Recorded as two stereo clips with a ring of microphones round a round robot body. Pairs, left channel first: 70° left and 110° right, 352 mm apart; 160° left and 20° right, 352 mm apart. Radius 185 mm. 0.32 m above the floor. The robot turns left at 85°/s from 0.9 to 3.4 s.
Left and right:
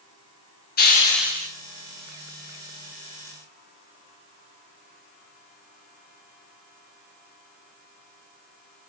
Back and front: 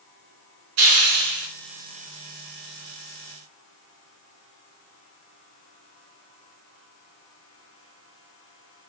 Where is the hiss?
5° left, 2.5 m; by 1.5 s 45° right, 2.5 m.